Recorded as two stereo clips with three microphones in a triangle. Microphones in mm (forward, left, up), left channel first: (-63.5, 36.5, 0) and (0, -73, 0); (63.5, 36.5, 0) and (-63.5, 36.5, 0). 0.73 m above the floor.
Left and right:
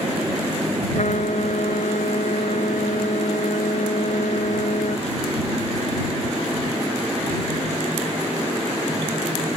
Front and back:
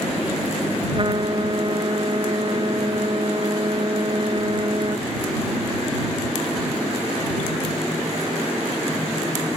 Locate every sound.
0.9 s a trumpet: 130° left